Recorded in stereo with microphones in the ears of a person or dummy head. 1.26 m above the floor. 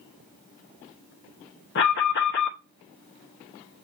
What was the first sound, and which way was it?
An alarm, 55° left (ahead or behind).